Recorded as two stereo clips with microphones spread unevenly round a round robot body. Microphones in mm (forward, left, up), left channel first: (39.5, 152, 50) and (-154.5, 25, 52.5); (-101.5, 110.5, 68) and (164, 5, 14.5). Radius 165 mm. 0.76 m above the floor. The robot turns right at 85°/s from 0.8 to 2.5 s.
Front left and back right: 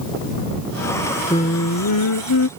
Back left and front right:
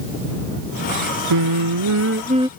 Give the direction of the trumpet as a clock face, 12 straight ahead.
I don't hear a trumpet.